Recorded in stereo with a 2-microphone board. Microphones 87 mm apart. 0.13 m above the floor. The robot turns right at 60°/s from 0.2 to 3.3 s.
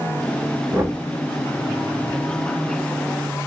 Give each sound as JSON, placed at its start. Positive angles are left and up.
{"t": 0.7, "sound": "knocking", "side_deg": -30, "distance_m": 1.1}